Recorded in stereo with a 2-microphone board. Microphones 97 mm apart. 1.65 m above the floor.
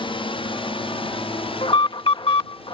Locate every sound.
0.0 s a drone: 60° left (ahead or behind); by 2.8 s 70° left (ahead or behind)
1.6 s an alarm: 65° left (ahead or behind)